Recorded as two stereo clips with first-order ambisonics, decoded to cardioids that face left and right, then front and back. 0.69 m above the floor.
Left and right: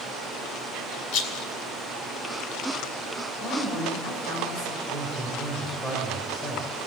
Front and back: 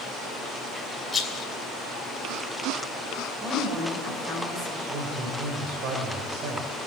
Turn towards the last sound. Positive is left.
turn(degrees=160)